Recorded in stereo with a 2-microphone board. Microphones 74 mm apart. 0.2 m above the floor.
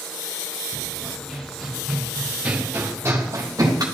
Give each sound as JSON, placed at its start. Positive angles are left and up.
{"t": 0.7, "sound": "running footsteps", "side_deg": 10, "distance_m": 3.0}